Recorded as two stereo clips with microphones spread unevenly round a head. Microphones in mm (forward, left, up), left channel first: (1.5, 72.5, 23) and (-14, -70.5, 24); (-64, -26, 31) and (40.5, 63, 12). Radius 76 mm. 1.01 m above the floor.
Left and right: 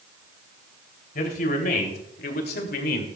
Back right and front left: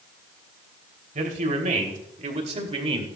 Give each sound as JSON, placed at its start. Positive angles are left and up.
{"t": 1.1, "sound": "a man speaking", "azimuth_deg": 60, "distance_m": 3.0}